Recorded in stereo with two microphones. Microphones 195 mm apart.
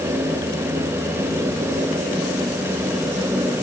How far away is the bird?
No bird in this recording.